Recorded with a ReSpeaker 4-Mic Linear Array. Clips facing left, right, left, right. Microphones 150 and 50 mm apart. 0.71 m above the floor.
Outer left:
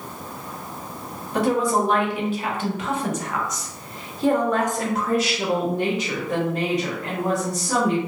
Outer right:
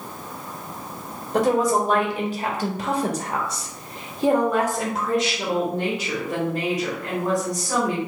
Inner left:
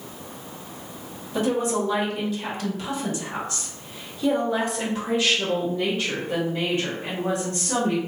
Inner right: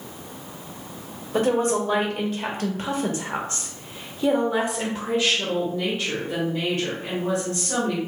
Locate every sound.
1.3 s a woman speaking: 40° right (ahead or behind), 1.7 m; by 8.0 s 30° left (ahead or behind), 2 m